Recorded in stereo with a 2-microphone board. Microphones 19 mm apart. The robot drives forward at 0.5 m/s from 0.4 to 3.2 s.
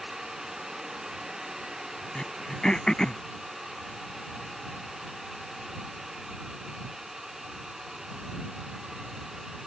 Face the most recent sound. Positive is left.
turn(degrees=45)  # may be behind; listen again after turning